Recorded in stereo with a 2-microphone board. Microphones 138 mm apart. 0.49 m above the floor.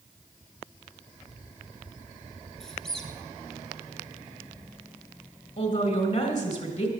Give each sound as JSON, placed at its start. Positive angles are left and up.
{"t": 2.6, "sound": "a squeak", "side_deg": 5, "distance_m": 1.7}
{"t": 5.6, "sound": "a man speaking", "side_deg": 50, "distance_m": 3.0}